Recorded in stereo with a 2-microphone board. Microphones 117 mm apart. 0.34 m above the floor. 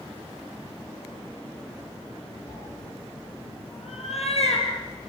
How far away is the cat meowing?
About 6.5 m.